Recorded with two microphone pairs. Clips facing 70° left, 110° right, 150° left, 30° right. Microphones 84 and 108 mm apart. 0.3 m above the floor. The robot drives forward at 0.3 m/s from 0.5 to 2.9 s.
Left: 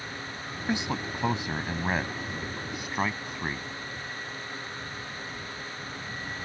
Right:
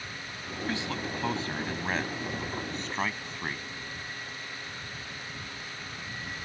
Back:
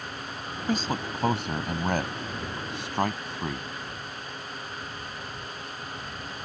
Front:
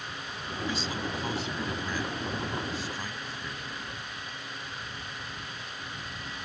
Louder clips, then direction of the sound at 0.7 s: Left 4 dB, back 7 dB; 135° left.